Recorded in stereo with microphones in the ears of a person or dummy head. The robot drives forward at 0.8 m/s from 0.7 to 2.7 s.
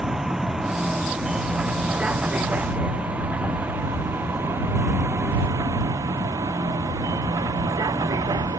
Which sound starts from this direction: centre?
A vehicle, at 0.0 s.